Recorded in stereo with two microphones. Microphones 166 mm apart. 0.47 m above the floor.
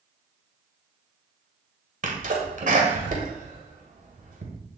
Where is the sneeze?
55° right (ahead or behind), 1.8 m.